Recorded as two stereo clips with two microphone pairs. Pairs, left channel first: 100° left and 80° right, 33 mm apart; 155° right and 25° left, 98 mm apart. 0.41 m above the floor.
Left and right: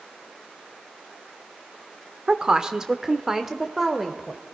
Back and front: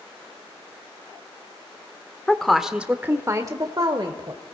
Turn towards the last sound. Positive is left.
turn(degrees=5)